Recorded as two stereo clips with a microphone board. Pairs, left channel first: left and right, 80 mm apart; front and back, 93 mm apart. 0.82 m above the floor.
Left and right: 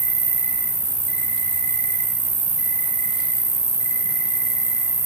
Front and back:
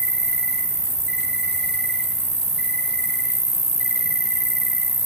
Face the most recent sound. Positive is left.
turn(degrees=85)